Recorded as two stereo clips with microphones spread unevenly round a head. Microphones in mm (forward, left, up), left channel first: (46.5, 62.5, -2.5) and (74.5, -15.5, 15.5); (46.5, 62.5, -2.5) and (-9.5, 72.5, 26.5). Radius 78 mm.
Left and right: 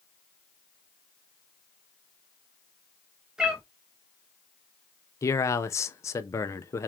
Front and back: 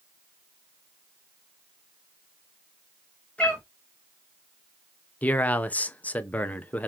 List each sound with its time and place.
3.4 s a cat meowing: 120° right, 0.9 m
5.2 s a man speaking: 90° left, 0.5 m